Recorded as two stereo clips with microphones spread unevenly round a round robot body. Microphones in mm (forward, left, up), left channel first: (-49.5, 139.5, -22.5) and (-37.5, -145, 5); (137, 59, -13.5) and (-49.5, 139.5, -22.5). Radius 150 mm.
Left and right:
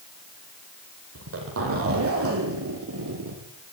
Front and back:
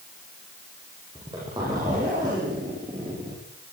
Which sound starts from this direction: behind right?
A zipper, at 1.1 s.